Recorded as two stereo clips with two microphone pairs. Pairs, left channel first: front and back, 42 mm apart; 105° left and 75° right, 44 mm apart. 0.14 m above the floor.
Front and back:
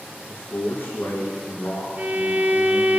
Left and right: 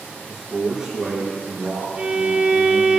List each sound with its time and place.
0.3 s a man speaking: 5° left, 2.5 m
2.0 s a violin: 130° right, 0.8 m